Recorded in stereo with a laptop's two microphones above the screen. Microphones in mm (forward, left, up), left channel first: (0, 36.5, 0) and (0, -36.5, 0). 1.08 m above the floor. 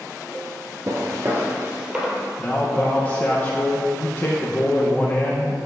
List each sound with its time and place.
0.9 s footsteps: 40° right (ahead or behind), 1.3 m; by 2.3 s 10° right (ahead or behind), 2 m
2.4 s a man speaking: 25° left (ahead or behind), 0.9 m